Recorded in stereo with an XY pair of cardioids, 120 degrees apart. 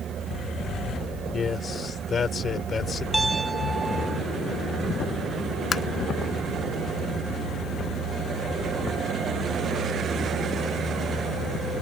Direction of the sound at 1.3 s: 35° left.